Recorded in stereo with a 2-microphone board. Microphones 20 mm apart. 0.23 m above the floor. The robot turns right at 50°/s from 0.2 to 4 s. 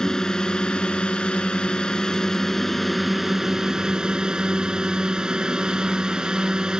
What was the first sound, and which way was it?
A drone, 40° left.